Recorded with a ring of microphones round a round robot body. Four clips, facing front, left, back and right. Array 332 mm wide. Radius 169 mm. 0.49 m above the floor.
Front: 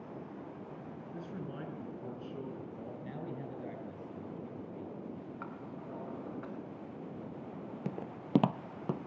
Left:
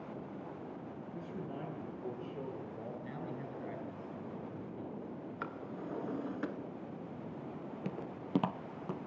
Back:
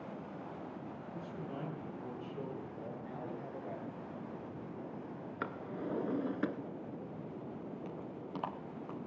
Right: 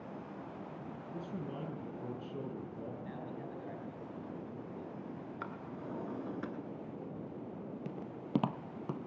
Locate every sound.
1.1 s a man speaking: 65° right, 7 m
3.0 s a man speaking: 30° left, 7.5 m
5.4 s a drawer: 175° left, 1.7 m
7.8 s footsteps: 20° left, 0.5 m; by 9.0 s 5° right, 1.3 m